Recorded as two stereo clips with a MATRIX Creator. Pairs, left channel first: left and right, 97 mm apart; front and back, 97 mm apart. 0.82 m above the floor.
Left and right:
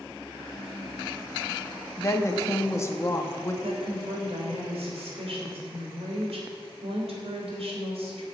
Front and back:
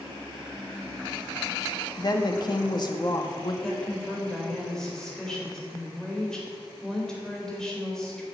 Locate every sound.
2.0 s a woman speaking: 35° left, 1.4 m
3.6 s a woman speaking: 80° right, 3.5 m